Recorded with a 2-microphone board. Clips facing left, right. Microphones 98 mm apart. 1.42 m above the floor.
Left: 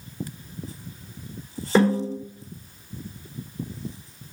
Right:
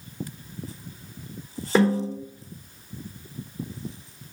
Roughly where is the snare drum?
Centre.